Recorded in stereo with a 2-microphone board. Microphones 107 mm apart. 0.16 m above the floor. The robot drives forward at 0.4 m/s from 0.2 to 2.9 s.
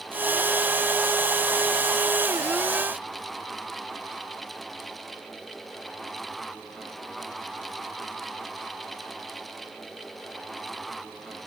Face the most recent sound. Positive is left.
No sound to turn to.